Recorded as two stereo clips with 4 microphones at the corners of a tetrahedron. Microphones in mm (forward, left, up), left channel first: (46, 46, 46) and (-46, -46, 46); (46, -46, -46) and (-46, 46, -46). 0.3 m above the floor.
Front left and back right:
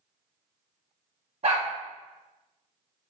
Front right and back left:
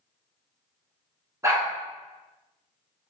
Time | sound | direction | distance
1.4 | a dog barking | 160° right | 1.2 m